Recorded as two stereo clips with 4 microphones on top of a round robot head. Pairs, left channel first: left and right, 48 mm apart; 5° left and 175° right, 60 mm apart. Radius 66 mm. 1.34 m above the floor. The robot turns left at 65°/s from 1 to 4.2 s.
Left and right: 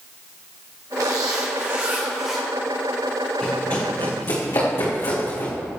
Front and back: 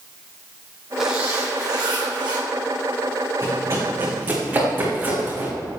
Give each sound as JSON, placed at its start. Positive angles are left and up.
{"t": 1.0, "sound": "a zipper", "azimuth_deg": -95, "distance_m": 3.0}
{"t": 3.4, "sound": "running footsteps", "azimuth_deg": 165, "distance_m": 5.5}